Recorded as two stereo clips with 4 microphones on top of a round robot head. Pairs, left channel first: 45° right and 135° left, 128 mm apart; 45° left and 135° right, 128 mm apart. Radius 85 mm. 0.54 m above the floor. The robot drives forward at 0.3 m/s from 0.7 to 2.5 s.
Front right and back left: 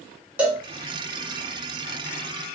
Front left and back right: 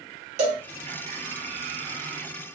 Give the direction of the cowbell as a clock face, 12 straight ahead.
5 o'clock.